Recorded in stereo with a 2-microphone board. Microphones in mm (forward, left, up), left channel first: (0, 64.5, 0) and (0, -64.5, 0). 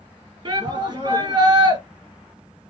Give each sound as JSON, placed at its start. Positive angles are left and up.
{"t": 0.5, "sound": "a shout", "side_deg": -35, "distance_m": 1.5}